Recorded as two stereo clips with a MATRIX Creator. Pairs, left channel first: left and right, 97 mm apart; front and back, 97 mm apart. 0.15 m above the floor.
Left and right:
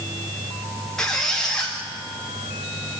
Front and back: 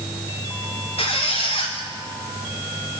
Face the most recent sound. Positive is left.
turn(degrees=5)